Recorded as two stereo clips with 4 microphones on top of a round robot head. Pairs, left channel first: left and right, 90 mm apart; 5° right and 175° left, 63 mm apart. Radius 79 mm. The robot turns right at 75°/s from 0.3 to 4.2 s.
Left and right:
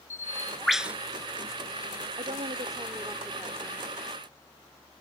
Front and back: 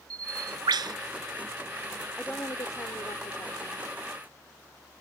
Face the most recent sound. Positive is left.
turn(degrees=65)